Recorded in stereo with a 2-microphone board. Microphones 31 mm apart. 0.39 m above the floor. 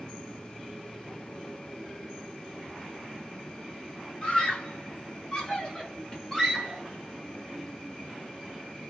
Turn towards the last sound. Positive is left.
turn(degrees=10)  # may be behind; listen again after turning